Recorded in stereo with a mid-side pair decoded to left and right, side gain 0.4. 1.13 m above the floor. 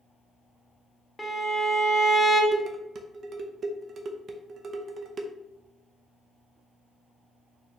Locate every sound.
1.2 s a violin: 20° left, 0.9 m
2.5 s dishes clattering: 55° right, 0.6 m